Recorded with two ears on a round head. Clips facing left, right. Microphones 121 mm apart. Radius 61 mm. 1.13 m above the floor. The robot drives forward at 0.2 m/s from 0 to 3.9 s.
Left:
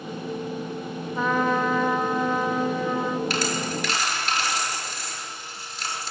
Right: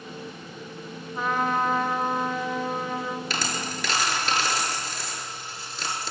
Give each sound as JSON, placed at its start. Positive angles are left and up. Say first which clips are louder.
{"t": 1.1, "sound": "a trumpet", "louder": "left 2 dB", "side_deg": 70, "distance_m": 1.0}
{"t": 3.3, "sound": "a dropped coin", "louder": "left 5 dB", "side_deg": -70, "distance_m": 7.0}